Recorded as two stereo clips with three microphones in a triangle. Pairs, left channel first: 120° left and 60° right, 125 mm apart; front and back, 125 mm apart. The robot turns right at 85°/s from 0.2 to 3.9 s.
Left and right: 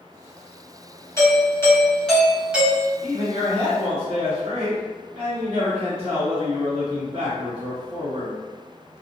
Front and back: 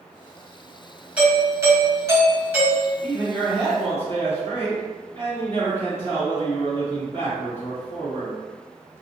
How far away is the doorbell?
About 1.5 m.